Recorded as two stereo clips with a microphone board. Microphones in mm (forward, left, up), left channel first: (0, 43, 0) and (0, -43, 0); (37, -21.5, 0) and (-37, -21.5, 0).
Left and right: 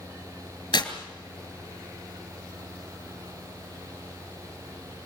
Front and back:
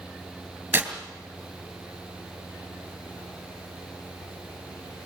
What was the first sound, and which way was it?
Tearing paper, 115° left.